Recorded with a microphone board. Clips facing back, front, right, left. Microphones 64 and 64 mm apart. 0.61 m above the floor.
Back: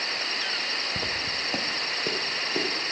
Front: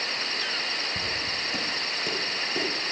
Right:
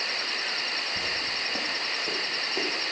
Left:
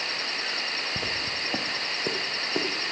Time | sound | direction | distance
1.0 | footsteps | 135° left | 2.0 m